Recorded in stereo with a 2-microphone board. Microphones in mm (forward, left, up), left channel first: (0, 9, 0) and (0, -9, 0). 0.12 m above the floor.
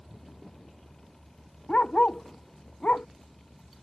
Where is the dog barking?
70° left (ahead or behind); by 3.1 s 80° left.